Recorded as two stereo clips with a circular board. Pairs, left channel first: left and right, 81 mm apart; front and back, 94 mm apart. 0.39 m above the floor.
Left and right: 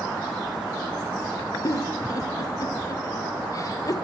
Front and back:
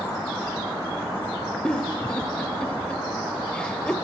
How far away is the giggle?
About 1.7 m.